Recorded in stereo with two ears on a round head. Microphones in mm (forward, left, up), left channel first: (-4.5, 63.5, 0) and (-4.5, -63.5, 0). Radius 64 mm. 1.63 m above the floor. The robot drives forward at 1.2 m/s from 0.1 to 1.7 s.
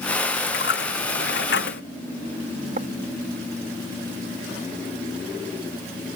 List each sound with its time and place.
0.5 s a dropped coin: 80° left
2.8 s writing: 50° right (ahead or behind)